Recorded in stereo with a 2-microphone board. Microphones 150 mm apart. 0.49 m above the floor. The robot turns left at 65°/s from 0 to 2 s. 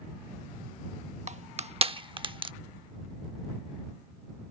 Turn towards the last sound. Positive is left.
turn(degrees=-35)  # may be behind; listen again after turning